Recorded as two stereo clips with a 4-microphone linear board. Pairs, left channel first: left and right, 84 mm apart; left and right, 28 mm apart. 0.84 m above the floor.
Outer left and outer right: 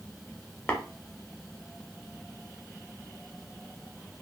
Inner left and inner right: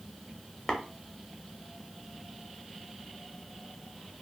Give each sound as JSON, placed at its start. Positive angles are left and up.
{"t": 0.7, "sound": "tapping", "side_deg": 20, "distance_m": 0.6}